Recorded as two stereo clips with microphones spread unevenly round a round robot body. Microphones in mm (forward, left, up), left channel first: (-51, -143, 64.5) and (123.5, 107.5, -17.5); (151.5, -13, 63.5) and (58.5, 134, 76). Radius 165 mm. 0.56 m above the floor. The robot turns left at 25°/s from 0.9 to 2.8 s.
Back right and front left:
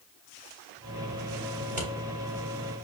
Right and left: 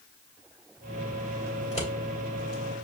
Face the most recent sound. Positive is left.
turn(degrees=-30)